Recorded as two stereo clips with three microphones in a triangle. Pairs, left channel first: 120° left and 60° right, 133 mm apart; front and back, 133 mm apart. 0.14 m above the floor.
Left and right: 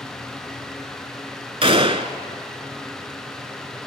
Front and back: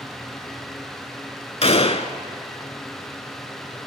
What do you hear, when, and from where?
1.6 s a gunshot: 25° right, 0.5 m